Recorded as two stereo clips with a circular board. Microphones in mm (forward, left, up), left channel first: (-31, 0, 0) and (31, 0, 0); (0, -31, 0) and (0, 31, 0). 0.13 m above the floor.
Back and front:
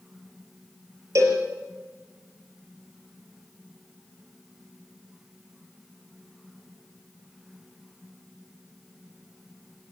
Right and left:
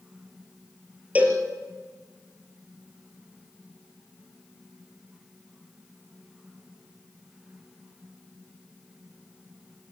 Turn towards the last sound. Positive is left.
turn(degrees=25)